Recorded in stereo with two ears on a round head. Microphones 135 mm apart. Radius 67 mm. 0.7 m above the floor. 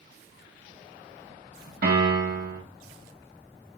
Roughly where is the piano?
Right.